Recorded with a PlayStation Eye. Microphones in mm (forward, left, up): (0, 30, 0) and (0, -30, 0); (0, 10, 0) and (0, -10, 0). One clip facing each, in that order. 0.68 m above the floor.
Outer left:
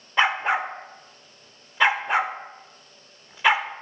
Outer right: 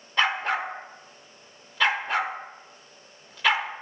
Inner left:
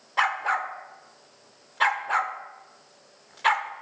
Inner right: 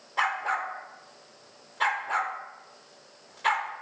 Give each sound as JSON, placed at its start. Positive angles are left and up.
{"t": 0.2, "sound": "a dog barking", "side_deg": 15, "distance_m": 0.5}